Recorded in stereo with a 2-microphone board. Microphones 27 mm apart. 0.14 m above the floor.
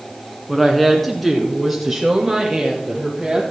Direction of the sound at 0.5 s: 5° left (ahead or behind).